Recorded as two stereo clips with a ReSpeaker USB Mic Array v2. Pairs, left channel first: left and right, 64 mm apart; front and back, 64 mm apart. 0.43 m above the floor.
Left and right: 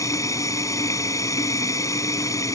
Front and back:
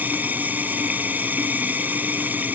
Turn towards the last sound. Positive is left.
turn(degrees=120)